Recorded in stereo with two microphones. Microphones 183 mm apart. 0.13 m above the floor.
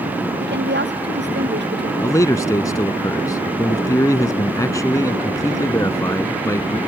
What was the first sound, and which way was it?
A woman speaking, 75° right (ahead or behind).